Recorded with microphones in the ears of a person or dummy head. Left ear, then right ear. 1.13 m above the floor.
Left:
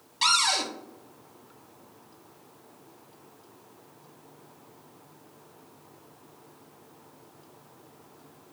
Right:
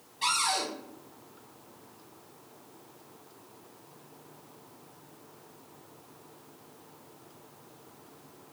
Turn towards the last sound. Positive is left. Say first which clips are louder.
# left 5 dB
turn(degrees=45)  # may be behind; listen again after turning